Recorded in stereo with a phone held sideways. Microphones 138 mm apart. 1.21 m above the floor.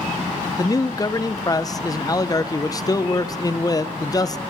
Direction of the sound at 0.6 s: 25° left (ahead or behind).